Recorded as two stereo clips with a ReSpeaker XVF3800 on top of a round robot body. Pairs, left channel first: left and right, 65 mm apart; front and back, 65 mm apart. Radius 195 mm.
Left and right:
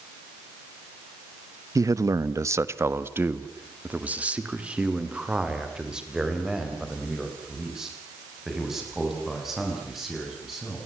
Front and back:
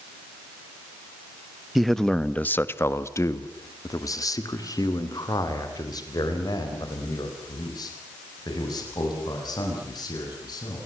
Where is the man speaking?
90° right, 1.3 m; by 10.8 s 5° right, 8.5 m.